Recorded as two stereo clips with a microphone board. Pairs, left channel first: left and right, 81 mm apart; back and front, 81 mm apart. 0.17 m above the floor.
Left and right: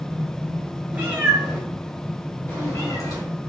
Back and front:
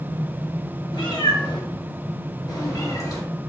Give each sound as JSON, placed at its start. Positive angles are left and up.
{"t": 0.9, "sound": "a cat meowing", "azimuth_deg": -165, "distance_m": 1.3}